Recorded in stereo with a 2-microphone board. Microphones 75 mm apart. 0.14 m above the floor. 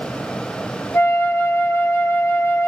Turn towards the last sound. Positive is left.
turn(degrees=35)  # may be behind; listen again after turning